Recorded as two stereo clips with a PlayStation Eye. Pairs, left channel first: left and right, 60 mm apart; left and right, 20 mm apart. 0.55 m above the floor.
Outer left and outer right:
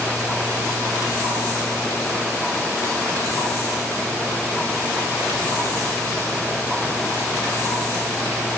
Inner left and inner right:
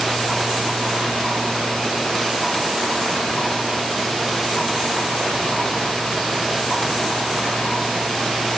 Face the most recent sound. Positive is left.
No sound to turn to.